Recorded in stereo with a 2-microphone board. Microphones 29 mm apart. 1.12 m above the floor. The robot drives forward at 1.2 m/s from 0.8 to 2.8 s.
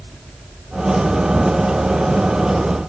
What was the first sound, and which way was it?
Only background noise.